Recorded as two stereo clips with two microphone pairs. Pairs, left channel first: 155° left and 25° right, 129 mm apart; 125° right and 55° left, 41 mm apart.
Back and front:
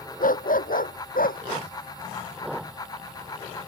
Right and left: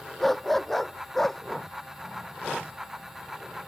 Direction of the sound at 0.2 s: 150° left.